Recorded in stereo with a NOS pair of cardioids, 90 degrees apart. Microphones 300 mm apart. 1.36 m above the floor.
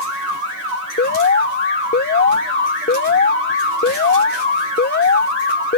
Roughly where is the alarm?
Ahead left.